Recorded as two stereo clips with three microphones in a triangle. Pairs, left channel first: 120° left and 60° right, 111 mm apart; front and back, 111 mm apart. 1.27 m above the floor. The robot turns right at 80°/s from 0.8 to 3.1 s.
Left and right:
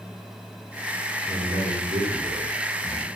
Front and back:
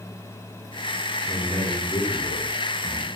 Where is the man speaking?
100° right, 3.5 m; by 3.1 s 45° left, 3.5 m.